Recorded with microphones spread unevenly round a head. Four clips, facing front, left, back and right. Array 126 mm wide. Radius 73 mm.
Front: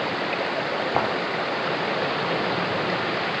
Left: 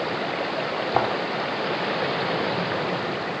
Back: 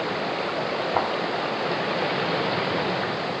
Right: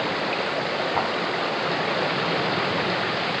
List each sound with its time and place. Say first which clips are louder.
0.9 s footsteps: left 5 dB, front 1 dB; 55° left, 2 m